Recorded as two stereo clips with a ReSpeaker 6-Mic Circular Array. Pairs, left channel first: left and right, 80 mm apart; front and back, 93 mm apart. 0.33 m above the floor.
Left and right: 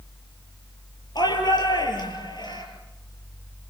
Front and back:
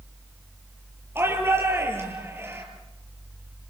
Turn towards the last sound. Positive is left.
turn(degrees=115)